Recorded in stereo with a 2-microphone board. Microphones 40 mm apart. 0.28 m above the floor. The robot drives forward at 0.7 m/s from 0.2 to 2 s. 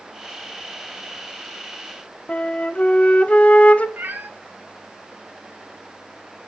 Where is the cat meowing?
60° right (ahead or behind), 1.1 m.